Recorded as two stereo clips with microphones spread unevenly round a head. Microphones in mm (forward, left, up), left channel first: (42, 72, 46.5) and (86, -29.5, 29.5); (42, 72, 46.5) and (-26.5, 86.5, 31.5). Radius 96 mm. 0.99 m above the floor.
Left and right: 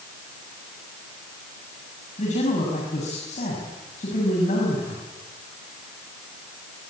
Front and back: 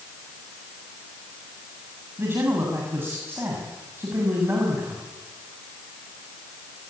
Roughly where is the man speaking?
Left.